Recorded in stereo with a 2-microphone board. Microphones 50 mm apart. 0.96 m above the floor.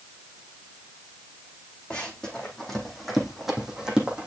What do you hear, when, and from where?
1.9 s running footsteps: 15° left (ahead or behind), 3 m; by 4.3 s 20° right (ahead or behind), 2.5 m